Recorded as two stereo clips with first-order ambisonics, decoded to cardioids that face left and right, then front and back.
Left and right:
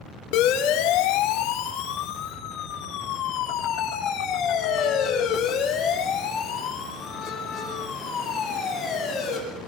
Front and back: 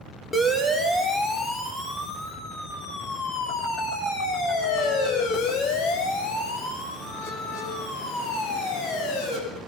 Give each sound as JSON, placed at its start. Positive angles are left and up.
{"t": 0.3, "sound": "a siren", "azimuth_deg": 80, "distance_m": 4.0}